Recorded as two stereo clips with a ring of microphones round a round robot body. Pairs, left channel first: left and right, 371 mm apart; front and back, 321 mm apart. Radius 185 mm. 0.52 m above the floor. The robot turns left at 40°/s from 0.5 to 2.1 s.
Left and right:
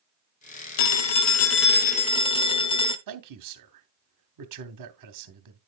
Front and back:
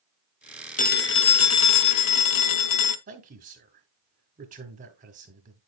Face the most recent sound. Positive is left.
turn(degrees=-115)